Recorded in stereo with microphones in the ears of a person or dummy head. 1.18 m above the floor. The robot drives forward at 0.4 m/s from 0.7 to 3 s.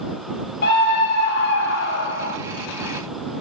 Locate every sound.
0.6 s a scream: 60° left (ahead or behind), 3 m; by 2.4 s 70° left (ahead or behind), 3 m